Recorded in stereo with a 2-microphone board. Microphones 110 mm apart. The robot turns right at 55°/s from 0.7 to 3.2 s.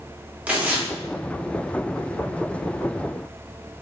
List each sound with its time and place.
0.5 s tearing paper: 15° right (ahead or behind), 0.5 m; by 0.9 s 5° right (ahead or behind), 0.5 m